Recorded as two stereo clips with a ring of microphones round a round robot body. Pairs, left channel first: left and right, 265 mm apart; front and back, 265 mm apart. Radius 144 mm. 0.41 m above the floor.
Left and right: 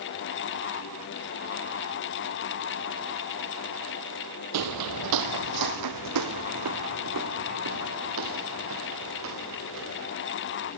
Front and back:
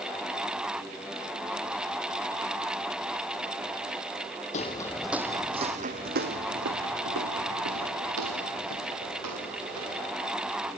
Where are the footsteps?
65° right, 0.9 m; by 10.1 s 140° right, 5 m.